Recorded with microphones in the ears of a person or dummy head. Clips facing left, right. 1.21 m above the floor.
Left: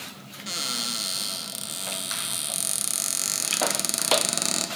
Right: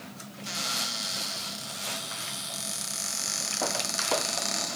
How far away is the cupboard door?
About 0.8 m.